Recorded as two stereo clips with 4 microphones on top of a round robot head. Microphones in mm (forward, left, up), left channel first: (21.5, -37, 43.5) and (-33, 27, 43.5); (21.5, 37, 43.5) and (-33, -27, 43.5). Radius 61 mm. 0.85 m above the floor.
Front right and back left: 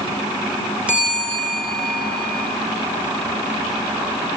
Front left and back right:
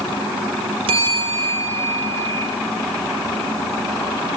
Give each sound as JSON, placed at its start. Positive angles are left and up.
{"t": 0.9, "sound": "a bell", "azimuth_deg": -150, "distance_m": 6.0}